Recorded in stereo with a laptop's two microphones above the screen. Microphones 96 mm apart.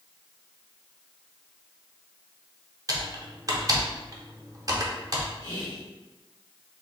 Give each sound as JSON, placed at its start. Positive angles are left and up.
{"t": 2.9, "sound": "typing on a keyboard", "side_deg": -40, "distance_m": 0.6}
{"t": 5.4, "sound": "whispering", "side_deg": 45, "distance_m": 1.2}